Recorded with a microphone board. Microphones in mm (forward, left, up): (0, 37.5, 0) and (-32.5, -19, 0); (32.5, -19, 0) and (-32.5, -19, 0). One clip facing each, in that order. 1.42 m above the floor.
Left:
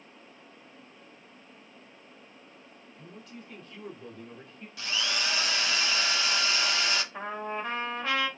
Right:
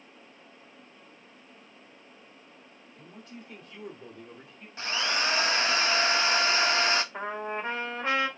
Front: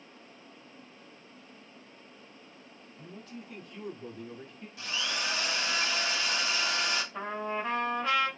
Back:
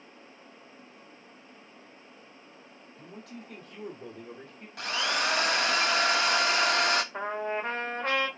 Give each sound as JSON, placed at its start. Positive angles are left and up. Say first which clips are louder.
{"t": 3.0, "sound": "a man speaking", "louder": "even, back 1 dB", "azimuth_deg": 180, "distance_m": 2.5}
{"t": 4.8, "sound": "a drill", "louder": "right 3 dB, back 6 dB", "azimuth_deg": -170, "distance_m": 0.5}
{"t": 7.1, "sound": "a trumpet", "louder": "right 1 dB, back 2 dB", "azimuth_deg": -175, "distance_m": 1.6}